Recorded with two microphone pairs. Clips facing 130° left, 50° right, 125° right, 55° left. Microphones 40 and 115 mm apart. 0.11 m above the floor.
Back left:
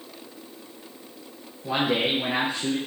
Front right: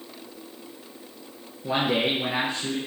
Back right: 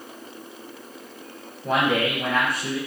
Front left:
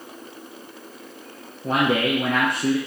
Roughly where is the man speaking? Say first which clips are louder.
Even, front left 1 dB; ahead.